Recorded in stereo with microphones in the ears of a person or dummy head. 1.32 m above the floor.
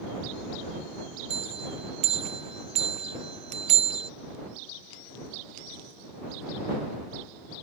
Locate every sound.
1.3 s a bell: 35° right (ahead or behind)